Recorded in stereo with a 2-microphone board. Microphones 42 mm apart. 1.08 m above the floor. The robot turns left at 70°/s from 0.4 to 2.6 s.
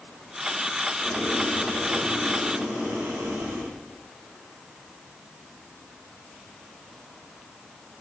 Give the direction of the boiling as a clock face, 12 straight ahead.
11 o'clock.